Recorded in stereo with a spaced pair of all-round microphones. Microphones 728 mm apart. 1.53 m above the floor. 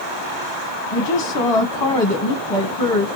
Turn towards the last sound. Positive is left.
turn(degrees=35)  # may be behind; listen again after turning